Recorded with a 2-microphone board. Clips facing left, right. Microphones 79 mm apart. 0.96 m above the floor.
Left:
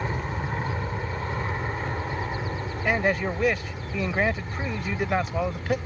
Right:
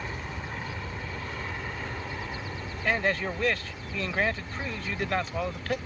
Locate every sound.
0.0 s an aircraft: 35° left (ahead or behind); by 5.9 s 25° left (ahead or behind)
2.9 s a man speaking: 15° left (ahead or behind)